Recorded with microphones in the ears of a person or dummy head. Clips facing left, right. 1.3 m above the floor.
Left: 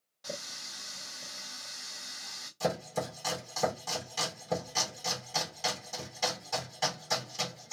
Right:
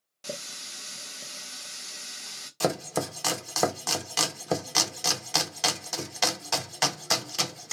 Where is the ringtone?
No ringtone in this recording.